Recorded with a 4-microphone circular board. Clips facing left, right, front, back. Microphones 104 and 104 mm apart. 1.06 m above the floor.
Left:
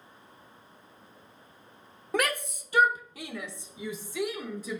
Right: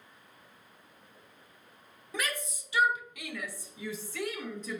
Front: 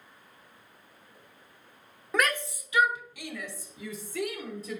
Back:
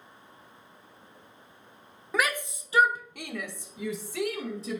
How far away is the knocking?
No knocking in this recording.